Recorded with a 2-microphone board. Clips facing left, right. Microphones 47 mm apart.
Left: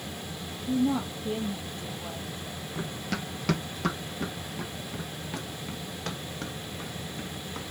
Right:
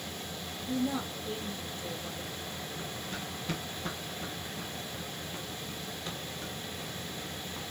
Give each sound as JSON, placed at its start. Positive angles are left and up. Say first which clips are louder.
{"t": 0.7, "sound": "a woman speaking", "louder": "left 6 dB", "side_deg": 35, "distance_m": 4.5}
{"t": 2.8, "sound": "running footsteps", "louder": "left 5 dB", "side_deg": 65, "distance_m": 1.3}